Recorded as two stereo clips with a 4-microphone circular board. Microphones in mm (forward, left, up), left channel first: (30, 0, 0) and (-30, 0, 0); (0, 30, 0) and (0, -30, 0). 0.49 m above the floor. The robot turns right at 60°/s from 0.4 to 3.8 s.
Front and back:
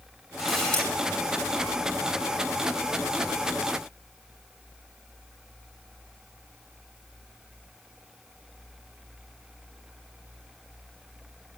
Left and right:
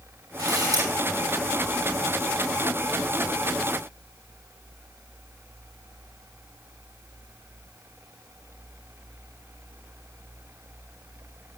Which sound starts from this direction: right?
A camera shutter, at 0.4 s.